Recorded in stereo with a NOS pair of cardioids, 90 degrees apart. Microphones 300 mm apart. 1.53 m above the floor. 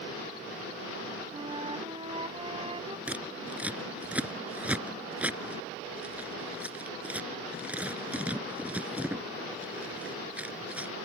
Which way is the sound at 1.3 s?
20° right.